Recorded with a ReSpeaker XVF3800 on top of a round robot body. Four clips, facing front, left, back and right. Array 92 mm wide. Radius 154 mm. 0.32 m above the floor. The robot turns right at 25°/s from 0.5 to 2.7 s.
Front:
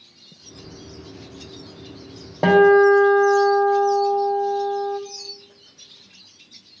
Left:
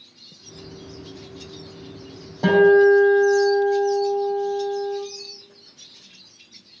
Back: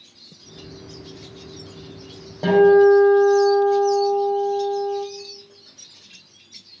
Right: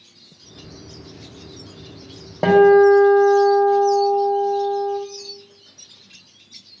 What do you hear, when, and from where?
2.4 s a guitar: 45° right, 1.9 m; by 5.0 s 40° right, 1.9 m